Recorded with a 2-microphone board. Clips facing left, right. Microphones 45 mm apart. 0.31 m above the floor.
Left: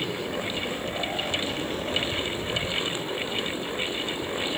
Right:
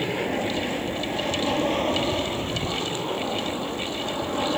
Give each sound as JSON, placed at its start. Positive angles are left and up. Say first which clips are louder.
{"t": 0.0, "sound": "an aircraft", "louder": "right 4 dB", "side_deg": -55}